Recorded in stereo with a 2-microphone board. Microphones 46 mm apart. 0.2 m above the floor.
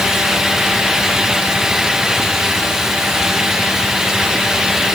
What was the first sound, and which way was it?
Only background noise.